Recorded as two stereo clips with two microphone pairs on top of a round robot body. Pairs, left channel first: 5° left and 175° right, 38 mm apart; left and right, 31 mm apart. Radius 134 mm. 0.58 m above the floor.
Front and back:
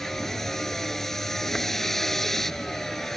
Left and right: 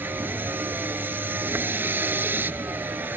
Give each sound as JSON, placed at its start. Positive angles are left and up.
{"t": 0.0, "sound": "a vehicle", "azimuth_deg": -75}